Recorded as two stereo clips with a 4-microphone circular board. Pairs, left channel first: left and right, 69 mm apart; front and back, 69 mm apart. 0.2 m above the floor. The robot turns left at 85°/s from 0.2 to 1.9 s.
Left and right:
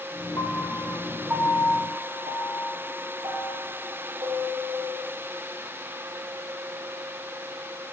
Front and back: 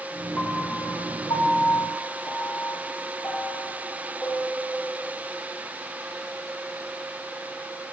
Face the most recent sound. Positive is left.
turn(degrees=-65)